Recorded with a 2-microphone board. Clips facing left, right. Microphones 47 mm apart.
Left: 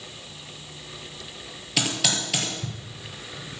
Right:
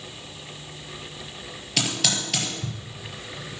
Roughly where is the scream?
No scream in this recording.